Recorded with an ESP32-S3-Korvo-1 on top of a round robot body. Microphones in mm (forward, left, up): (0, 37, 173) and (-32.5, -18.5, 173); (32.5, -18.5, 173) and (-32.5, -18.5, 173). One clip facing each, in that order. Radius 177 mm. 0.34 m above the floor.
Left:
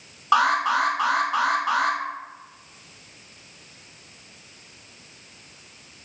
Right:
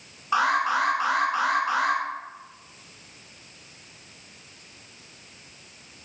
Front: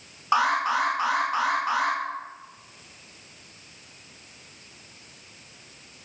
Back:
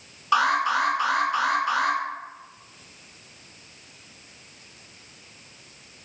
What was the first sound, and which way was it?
An alarm, 65° left.